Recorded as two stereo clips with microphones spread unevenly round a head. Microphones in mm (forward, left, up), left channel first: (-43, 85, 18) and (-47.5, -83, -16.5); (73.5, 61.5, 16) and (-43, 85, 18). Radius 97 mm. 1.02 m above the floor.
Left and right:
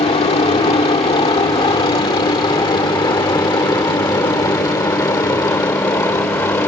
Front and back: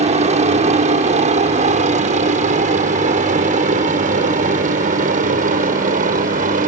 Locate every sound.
0.0 s a helicopter: 145° left; by 6.7 s 165° left